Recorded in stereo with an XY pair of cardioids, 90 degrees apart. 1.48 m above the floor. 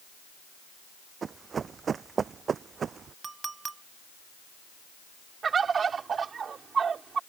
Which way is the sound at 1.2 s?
50° right.